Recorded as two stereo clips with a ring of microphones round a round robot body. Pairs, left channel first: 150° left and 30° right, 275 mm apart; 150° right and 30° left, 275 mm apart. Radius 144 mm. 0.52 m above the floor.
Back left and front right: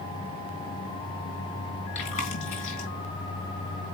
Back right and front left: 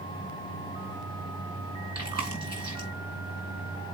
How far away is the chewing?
About 4 m.